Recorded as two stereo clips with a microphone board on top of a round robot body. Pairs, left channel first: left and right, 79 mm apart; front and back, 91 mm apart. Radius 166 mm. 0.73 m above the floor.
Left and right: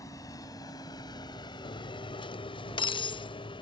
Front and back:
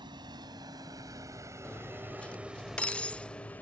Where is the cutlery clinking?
80° left.